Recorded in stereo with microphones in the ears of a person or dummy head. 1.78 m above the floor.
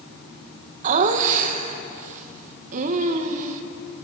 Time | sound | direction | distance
0.8 | laughter | 45° right (ahead or behind) | 1.3 m